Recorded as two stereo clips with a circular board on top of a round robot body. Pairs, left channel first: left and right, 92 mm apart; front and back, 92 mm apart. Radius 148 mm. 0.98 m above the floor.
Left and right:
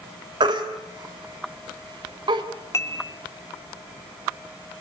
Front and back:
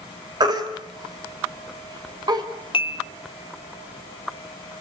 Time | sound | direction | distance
0.4 | a baby crying | 130° right | 2.5 m
2.7 | dishes clattering | 30° left | 1.9 m